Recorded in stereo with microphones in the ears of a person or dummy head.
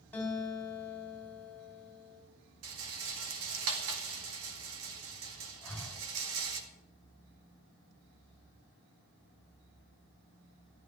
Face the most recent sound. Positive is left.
turn(degrees=10)  # may be behind; listen again after turning